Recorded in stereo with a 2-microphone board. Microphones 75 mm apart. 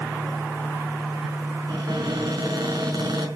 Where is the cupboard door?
75° right (ahead or behind), 5 m.